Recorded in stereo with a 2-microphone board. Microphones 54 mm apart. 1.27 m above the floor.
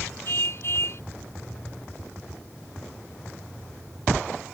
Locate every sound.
0.2 s a car horn: 50° left (ahead or behind)